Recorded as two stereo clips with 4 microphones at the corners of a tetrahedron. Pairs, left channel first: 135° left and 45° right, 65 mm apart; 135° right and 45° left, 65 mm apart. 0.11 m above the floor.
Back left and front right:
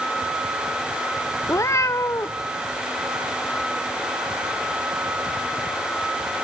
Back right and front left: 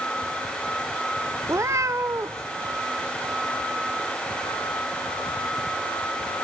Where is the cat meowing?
90° left, 0.8 m.